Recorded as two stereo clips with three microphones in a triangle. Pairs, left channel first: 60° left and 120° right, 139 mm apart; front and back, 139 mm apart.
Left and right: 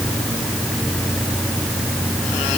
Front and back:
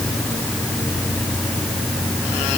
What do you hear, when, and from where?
Only background noise.